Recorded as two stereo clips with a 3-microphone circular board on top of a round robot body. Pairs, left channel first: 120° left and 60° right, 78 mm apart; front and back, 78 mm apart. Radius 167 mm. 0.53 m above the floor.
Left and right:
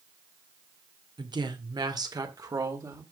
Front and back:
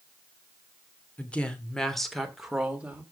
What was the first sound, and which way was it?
A woman speaking, 75° right.